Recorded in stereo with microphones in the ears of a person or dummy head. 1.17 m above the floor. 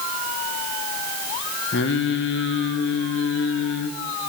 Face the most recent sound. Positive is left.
turn(degrees=50)  # may be behind; listen again after turning